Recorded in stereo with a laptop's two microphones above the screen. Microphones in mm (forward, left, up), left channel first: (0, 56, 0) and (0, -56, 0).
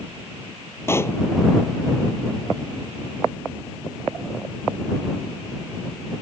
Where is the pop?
20° left (ahead or behind).